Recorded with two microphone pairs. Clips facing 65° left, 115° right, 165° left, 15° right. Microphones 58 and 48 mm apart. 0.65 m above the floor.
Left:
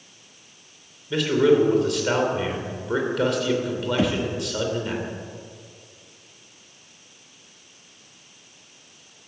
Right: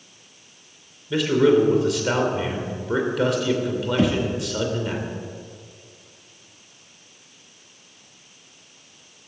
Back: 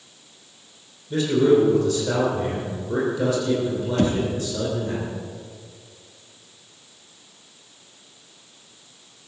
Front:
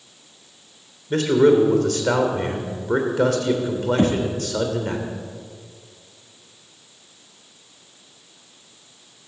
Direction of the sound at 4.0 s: 20° right.